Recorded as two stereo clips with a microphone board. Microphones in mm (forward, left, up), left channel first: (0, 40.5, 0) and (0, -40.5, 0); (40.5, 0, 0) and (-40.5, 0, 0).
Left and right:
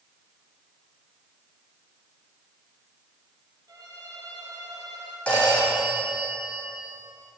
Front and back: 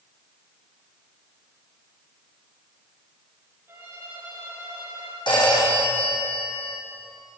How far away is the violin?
About 6 m.